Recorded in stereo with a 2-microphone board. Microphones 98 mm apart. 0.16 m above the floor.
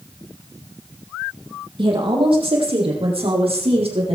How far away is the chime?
No chime in this recording.